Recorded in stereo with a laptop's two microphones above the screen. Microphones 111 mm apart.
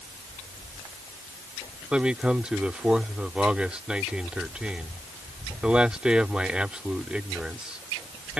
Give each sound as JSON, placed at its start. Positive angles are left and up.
{"t": 1.9, "sound": "a man speaking", "side_deg": -10}